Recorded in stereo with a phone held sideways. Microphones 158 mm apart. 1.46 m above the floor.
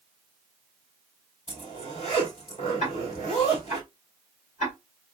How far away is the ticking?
About 3 m.